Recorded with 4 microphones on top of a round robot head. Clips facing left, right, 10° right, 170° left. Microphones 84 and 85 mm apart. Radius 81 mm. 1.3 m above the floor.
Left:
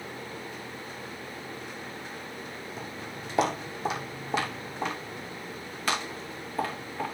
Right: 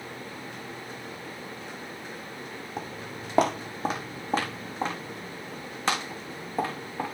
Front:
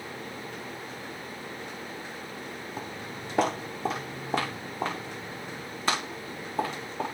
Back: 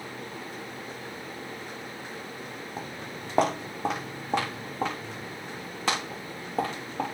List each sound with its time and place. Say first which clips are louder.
2.8 s footsteps: right 2 dB, even; 115° right, 2 m; by 7.0 s 155° right, 5 m